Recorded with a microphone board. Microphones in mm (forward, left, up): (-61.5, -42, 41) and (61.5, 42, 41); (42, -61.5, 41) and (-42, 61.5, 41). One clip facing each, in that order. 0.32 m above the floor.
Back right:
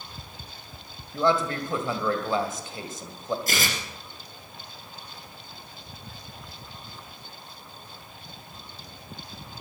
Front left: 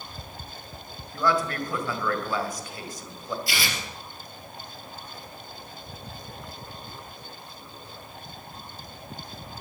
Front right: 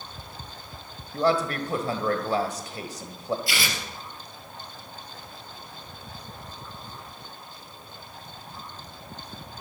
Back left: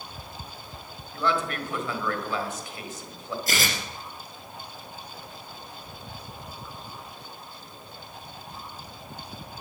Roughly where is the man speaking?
Right.